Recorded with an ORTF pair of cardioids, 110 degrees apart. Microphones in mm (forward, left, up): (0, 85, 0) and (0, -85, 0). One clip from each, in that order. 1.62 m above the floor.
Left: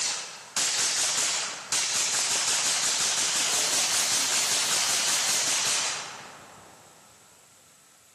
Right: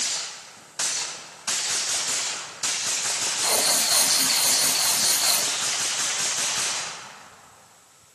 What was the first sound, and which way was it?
Writing, 70° right.